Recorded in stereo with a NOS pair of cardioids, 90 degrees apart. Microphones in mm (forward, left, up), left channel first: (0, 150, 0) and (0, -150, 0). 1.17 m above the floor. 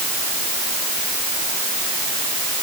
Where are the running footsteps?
I don't hear running footsteps.